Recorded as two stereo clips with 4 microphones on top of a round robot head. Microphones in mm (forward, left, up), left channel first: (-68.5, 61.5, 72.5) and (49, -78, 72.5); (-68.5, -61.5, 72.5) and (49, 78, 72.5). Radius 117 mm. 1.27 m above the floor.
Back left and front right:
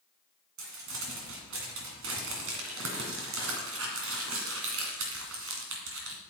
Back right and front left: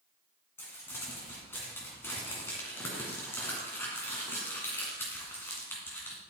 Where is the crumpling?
55° right, 2.0 m.